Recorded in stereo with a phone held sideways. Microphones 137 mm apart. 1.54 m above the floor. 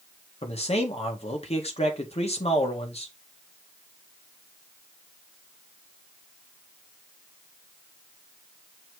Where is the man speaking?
50° left (ahead or behind), 1.9 m.